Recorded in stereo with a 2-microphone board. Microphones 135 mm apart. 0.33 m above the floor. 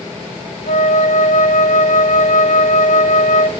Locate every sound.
0.7 s a flute: 65° left (ahead or behind), 0.5 m